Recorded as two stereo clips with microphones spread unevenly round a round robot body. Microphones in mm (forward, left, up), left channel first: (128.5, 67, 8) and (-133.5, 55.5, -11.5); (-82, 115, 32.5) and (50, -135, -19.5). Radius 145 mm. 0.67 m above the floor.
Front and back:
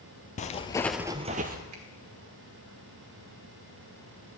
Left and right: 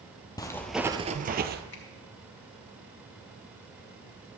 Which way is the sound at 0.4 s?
55° left.